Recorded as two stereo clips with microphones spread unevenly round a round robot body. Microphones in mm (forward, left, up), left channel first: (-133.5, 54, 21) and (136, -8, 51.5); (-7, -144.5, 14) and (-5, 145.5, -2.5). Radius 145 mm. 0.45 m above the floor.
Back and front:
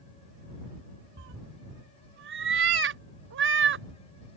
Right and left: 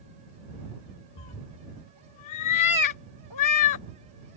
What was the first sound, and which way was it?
A cat meowing, 65° right.